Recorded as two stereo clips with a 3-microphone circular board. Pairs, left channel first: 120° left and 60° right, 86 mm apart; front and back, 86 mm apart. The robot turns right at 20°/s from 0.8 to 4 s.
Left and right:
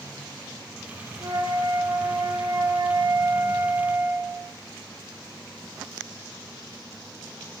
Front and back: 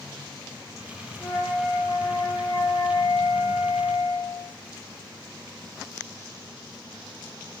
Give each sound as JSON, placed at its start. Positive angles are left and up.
{"t": 1.2, "sound": "a flute", "azimuth_deg": -60, "distance_m": 6.0}